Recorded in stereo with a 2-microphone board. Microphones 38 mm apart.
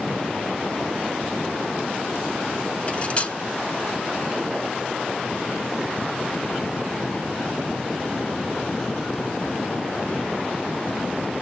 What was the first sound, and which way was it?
Cutlery clinking, 35° left (ahead or behind).